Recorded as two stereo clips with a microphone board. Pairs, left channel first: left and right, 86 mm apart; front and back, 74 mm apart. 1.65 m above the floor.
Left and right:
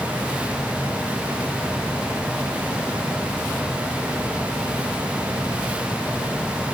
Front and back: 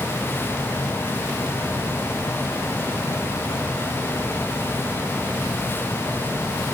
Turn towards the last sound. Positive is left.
No sound to turn to.